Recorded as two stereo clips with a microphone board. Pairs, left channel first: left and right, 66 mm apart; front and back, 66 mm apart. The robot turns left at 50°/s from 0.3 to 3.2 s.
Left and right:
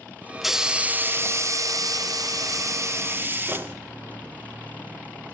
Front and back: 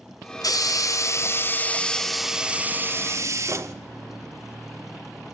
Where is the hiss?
Straight ahead, 0.6 m; by 3.8 s 140° right, 0.6 m.